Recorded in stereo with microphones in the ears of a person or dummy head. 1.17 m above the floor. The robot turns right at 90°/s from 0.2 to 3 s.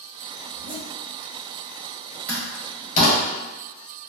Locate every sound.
0.5 s a zipper: 70° right, 0.9 m; by 0.9 s 35° right, 0.9 m
2.3 s a door slam: 15° right (ahead or behind), 1.4 m; by 3.2 s 50° left (ahead or behind), 1.4 m